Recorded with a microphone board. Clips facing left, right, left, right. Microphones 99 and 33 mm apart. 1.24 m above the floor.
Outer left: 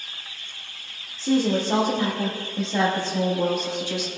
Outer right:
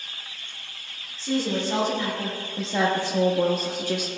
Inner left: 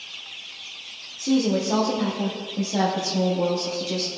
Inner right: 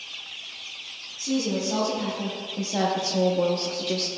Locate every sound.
1.2 s a woman speaking: 45° left (ahead or behind), 1.1 m; by 4.1 s 50° right (ahead or behind), 1.0 m